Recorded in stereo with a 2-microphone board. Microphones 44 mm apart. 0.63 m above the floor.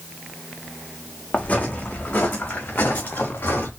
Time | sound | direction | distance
1.3 | footsteps | 35° left (ahead or behind) | 1.5 m